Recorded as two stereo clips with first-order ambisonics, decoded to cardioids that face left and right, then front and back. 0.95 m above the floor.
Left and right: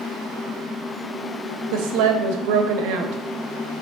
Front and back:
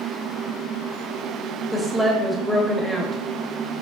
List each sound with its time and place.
1.7 s a woman speaking: 90° right, 1.1 m